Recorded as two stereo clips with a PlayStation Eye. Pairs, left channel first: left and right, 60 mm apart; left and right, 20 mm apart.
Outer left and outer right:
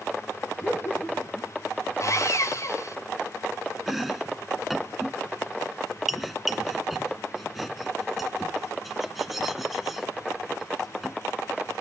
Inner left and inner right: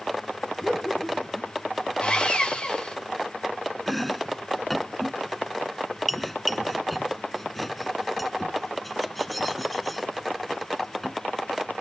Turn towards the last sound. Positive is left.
turn(degrees=0)  # may be behind; listen again after turning